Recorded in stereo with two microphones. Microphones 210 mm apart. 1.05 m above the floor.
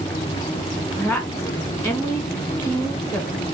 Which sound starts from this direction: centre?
A woman speaking, at 1.0 s.